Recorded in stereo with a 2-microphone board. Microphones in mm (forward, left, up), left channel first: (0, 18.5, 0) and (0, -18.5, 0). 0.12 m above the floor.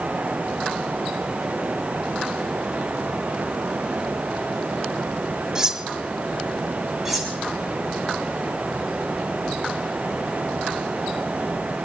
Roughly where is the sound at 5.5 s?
Centre.